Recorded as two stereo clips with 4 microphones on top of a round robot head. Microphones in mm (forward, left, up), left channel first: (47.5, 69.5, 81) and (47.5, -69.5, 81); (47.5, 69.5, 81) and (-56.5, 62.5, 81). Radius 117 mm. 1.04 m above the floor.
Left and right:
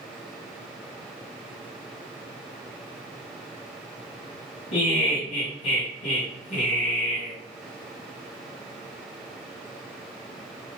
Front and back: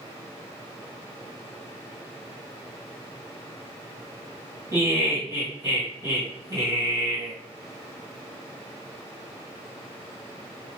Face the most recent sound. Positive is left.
turn(degrees=130)